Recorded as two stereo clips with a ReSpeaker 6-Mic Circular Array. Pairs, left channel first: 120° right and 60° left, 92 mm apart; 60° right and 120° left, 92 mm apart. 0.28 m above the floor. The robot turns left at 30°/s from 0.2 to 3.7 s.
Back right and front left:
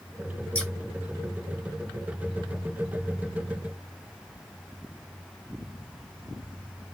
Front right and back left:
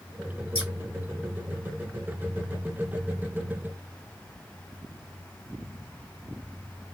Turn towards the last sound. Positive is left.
turn(degrees=-135)